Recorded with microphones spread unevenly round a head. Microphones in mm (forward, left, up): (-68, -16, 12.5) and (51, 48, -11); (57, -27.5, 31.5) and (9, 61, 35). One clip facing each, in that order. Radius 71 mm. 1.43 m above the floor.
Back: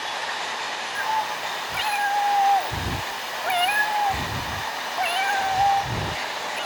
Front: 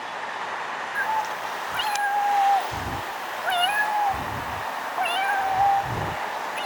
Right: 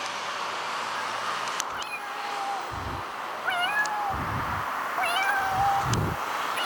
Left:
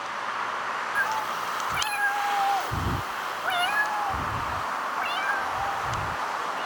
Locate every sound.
0.9 s a cat meowing: 135° left; by 6.7 s 70° right